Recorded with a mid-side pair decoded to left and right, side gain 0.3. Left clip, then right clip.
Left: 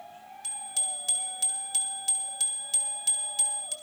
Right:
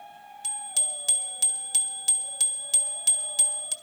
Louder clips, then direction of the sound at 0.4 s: Right 3 dB; 55° right.